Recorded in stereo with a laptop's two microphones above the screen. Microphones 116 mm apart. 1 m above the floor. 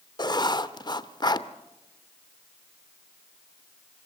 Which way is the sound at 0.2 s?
35° left (ahead or behind).